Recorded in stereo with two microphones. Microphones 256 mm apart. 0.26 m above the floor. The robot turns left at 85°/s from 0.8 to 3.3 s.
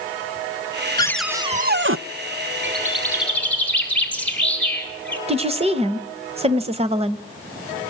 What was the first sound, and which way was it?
A cupboard door, 20° left.